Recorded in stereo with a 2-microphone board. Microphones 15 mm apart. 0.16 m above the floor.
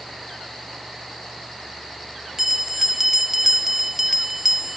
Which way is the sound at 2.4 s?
20° right (ahead or behind).